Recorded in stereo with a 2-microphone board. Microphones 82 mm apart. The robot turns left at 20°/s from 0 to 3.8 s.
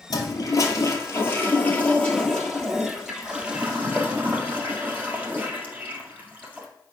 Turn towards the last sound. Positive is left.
turn(degrees=-20)